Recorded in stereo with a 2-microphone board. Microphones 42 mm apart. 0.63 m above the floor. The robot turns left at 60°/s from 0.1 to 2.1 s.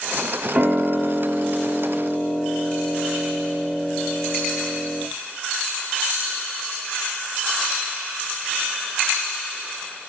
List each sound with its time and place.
0.6 s a piano: 110° right, 0.5 m; by 5.0 s 160° left, 0.5 m